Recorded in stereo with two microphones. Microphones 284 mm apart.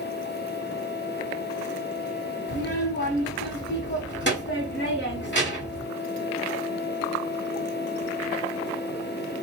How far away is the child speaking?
About 1.4 m.